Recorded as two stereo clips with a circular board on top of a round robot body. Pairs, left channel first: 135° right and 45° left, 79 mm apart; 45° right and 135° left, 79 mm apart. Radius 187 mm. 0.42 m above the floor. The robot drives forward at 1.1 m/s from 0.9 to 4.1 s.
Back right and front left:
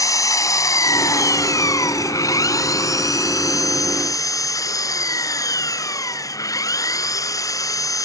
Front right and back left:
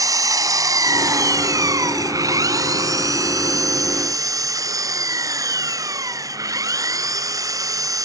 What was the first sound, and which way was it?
An engine running, straight behind.